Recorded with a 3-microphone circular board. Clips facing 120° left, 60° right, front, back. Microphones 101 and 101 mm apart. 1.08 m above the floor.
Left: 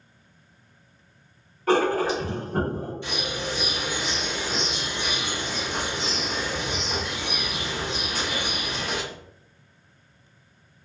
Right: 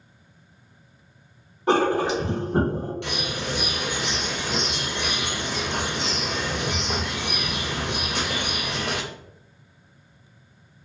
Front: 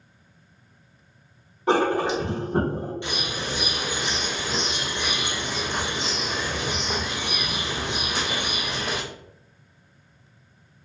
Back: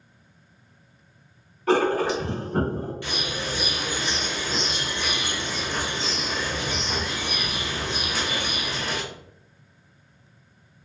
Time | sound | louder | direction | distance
1.7 | writing | right 1 dB, even | 25° right | 0.7 m
3.0 | a bird | right 1 dB, even | 70° right | 0.7 m